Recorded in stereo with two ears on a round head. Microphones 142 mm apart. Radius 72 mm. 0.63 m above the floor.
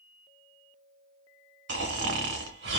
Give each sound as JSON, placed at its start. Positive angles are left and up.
{"t": 1.7, "sound": "snoring", "side_deg": -75, "distance_m": 1.7}